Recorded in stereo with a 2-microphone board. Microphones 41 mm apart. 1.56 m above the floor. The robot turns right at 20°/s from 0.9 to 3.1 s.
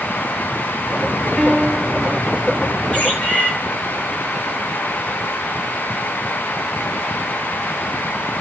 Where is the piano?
35° left (ahead or behind), 1.7 m; by 2.1 s 20° left (ahead or behind), 1.7 m.